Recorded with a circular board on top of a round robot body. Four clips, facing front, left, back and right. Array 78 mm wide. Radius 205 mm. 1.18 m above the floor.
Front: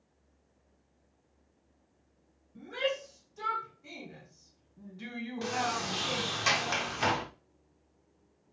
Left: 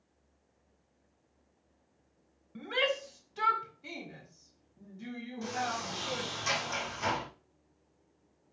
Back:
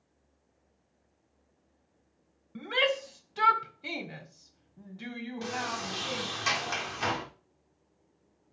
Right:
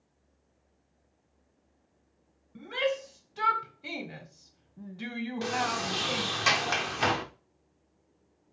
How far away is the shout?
About 1.6 m.